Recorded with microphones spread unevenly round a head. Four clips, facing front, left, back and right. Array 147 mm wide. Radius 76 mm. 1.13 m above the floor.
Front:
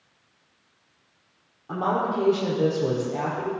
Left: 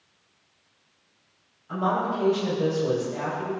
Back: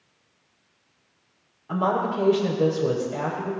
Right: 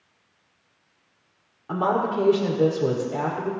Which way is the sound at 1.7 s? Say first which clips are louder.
Right 3 dB, back 1 dB; 80° right.